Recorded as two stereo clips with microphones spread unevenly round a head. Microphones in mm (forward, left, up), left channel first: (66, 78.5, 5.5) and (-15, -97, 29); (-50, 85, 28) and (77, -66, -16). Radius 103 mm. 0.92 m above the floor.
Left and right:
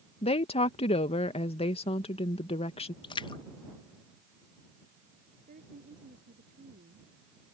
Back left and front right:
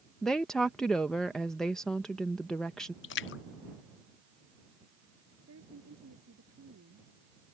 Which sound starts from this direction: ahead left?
A woman speaking, at 0.2 s.